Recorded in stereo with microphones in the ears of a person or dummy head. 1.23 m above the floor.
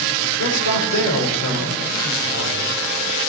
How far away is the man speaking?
About 4.5 m.